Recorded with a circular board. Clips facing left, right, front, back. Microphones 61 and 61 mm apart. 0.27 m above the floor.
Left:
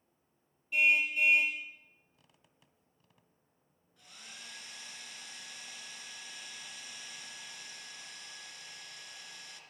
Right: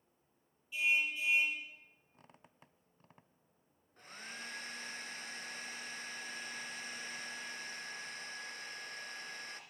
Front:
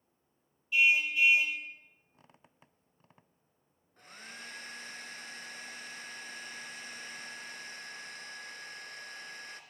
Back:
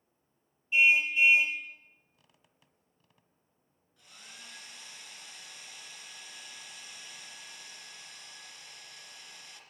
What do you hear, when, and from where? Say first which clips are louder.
0.7 s a car horn: left 6 dB, back 2 dB; 115° left, 3 m
2.1 s a squeak: right 7 dB, front 6 dB; 50° right, 0.7 m
4.0 s a hair dryer: right 5 dB, front 5 dB; 45° right, 2.5 m